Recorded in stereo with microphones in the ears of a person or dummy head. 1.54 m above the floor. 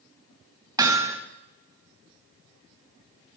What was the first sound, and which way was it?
Hammering, 20° right (ahead or behind).